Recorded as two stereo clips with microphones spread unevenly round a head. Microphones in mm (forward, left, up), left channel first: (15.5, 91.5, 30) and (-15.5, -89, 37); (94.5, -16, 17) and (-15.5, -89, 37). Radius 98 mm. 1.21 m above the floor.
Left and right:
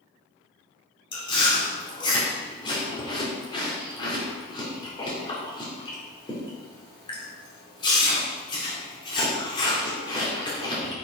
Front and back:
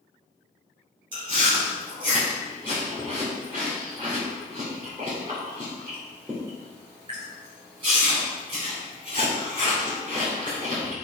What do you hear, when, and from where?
1.1 s chewing: 145° left, 2.5 m